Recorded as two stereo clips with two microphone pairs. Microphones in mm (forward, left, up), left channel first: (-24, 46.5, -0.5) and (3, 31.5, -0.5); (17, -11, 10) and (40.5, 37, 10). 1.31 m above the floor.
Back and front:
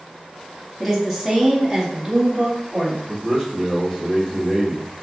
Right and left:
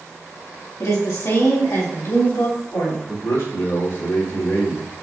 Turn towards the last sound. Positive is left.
turn(degrees=-135)